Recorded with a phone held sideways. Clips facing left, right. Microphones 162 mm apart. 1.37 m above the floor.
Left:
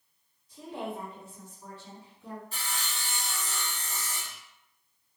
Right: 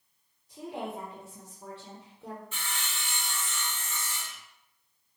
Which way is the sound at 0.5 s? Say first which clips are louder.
Even; 60° right (ahead or behind).